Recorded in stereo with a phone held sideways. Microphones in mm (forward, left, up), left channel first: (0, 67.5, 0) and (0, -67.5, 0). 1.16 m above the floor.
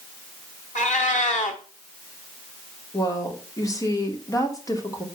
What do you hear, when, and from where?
0.8 s a cat meowing: 65° left (ahead or behind), 1.7 m
2.9 s a woman speaking: 25° left (ahead or behind), 2.5 m